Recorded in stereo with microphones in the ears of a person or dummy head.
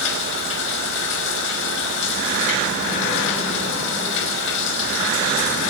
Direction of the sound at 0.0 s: 70° left (ahead or behind).